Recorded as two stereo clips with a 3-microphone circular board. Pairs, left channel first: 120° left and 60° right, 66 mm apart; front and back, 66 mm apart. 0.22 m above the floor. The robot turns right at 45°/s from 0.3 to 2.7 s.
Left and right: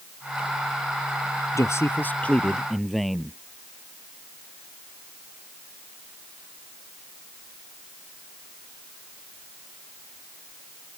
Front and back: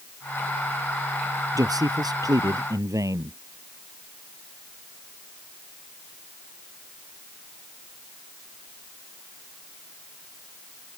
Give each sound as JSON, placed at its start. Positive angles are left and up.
{"t": 1.6, "sound": "a man speaking", "azimuth_deg": 160}